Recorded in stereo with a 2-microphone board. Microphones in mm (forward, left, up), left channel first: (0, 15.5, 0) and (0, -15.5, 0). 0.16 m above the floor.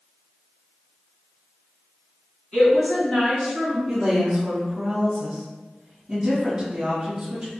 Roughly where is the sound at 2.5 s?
Left.